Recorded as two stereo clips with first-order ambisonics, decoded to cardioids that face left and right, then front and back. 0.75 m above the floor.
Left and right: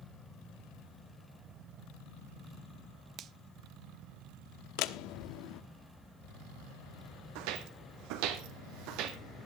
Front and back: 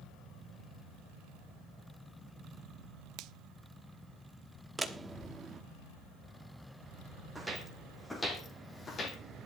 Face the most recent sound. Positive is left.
turn(degrees=-65)